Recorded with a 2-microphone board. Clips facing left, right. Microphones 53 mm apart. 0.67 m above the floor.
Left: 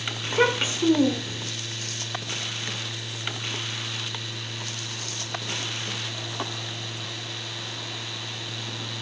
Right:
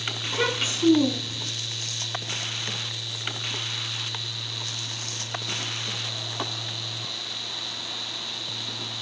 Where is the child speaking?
30° left (ahead or behind), 1.7 m.